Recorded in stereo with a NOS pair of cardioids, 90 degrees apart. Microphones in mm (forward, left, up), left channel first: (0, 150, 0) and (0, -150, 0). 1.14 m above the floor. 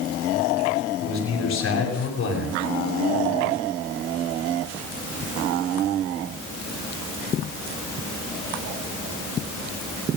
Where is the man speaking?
60° left, 7 m.